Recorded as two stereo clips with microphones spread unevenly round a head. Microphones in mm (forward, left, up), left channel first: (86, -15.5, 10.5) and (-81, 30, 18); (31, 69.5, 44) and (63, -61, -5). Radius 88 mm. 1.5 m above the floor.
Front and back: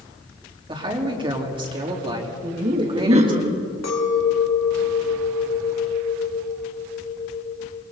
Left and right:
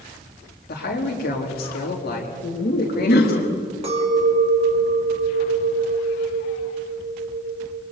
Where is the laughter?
110° left, 3 m.